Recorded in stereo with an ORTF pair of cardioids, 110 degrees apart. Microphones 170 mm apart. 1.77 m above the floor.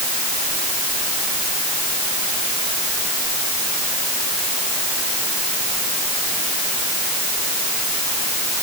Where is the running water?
No running water in this recording.